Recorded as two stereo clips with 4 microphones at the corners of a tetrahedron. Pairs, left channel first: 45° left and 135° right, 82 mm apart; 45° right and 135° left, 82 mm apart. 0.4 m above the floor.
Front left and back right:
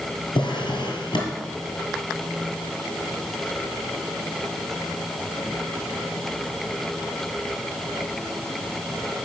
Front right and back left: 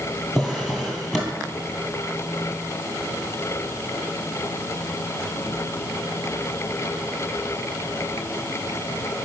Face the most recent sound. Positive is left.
turn(degrees=50)